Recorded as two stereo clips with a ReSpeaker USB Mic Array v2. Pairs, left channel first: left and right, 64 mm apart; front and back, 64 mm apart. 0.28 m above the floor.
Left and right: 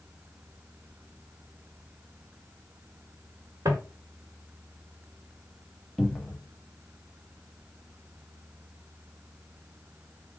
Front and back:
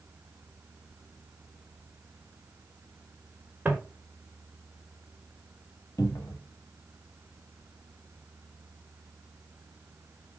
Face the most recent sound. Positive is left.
turn(degrees=0)